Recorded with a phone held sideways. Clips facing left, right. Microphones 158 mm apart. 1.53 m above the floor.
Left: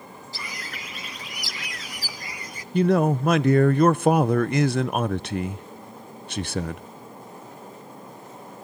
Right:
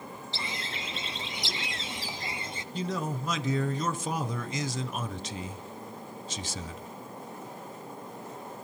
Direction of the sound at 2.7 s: 60° left (ahead or behind).